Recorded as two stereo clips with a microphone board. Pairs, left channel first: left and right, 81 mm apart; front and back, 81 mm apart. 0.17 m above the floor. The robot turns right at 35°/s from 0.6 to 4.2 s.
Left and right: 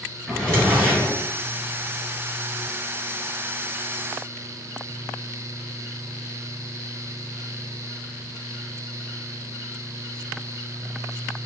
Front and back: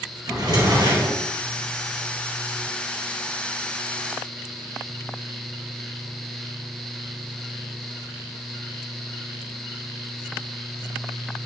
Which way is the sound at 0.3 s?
175° left.